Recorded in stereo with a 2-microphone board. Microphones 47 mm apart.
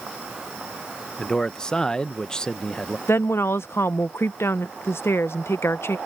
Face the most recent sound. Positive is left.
turn(degrees=65)  # may be behind; listen again after turning